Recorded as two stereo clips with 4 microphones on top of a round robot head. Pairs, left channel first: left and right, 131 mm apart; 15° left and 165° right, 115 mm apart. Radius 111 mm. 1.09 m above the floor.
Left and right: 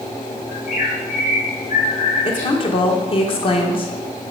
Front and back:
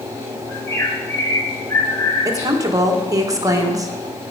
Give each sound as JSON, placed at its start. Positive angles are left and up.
{"t": 0.5, "sound": "a bird", "azimuth_deg": 75, "distance_m": 3.0}
{"t": 2.2, "sound": "a woman speaking", "azimuth_deg": 135, "distance_m": 1.6}